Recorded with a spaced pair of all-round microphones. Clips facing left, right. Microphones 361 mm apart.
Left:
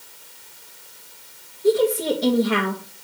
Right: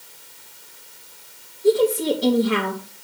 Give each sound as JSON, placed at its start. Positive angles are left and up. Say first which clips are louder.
{"t": 1.6, "sound": "a woman speaking", "louder": "right 1 dB", "side_deg": -5, "distance_m": 2.0}